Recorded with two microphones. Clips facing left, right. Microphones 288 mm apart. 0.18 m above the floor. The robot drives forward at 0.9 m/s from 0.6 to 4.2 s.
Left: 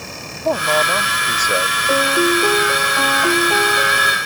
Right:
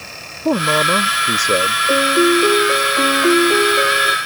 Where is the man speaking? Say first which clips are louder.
Right 3 dB; 40° right (ahead or behind); by 1.8 s 35° right (ahead or behind).